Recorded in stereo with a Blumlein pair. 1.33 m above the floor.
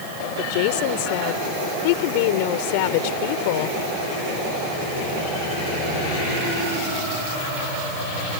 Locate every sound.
0.4 s a woman speaking: 45° left